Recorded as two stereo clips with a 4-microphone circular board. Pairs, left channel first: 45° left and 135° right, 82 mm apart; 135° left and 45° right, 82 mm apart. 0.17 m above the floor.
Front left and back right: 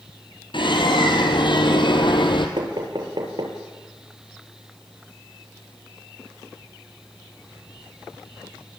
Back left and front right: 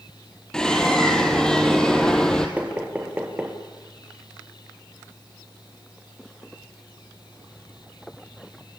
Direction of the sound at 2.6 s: 115° right.